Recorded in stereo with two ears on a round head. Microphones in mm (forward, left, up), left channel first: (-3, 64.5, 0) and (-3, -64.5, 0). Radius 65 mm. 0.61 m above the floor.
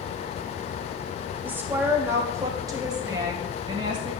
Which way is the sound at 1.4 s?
10° right (ahead or behind).